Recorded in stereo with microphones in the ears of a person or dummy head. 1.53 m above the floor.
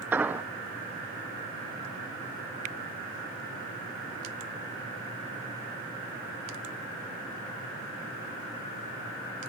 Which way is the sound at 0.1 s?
10° right (ahead or behind).